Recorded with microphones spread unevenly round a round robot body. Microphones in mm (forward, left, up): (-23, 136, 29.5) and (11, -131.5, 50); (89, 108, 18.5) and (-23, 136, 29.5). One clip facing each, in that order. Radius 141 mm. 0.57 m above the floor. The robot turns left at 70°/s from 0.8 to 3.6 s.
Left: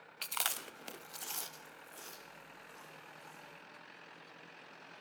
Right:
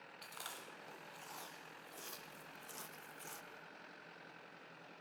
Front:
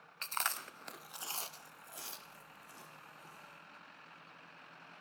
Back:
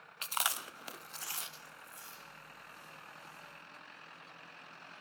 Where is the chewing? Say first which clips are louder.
Left 8 dB, back 2 dB; 90° left, 0.6 m; by 3.4 s 95° right, 0.6 m.